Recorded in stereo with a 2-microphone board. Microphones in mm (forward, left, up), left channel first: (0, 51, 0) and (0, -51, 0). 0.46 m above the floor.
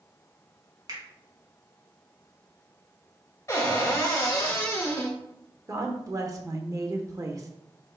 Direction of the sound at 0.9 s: 40° right (ahead or behind).